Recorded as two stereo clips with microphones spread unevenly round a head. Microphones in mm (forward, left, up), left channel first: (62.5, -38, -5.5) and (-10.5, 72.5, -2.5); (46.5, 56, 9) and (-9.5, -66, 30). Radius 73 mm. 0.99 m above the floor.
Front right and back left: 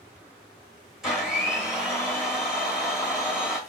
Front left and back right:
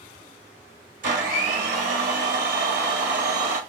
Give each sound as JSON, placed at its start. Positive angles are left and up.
{"t": 1.0, "sound": "a blender", "azimuth_deg": -150, "distance_m": 0.9}